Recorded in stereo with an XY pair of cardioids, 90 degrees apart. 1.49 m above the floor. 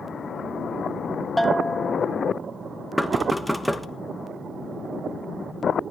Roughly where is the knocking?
Ahead.